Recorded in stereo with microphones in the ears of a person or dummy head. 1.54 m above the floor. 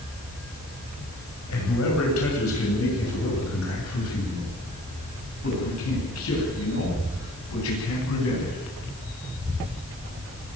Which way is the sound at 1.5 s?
85° left.